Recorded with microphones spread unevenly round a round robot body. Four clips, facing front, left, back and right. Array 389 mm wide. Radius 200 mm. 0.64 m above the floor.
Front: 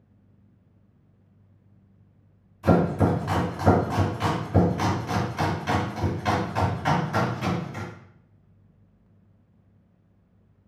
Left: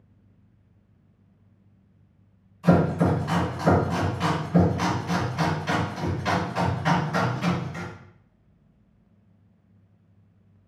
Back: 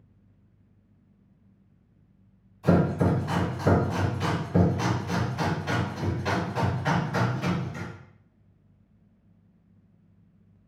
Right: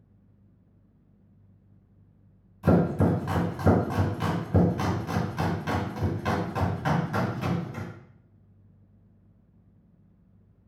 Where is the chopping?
60° right, 2.5 m.